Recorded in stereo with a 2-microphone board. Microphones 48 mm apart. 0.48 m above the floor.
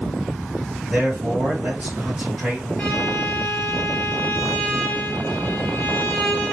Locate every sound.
0.9 s a man speaking: 25° right (ahead or behind), 2 m
2.8 s a violin: 30° left (ahead or behind), 1.2 m